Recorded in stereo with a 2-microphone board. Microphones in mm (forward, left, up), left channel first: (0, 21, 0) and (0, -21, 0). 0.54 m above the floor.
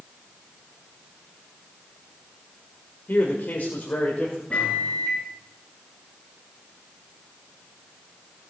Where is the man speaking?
55° left (ahead or behind), 1.8 m; by 4.4 s 35° left (ahead or behind), 2.5 m.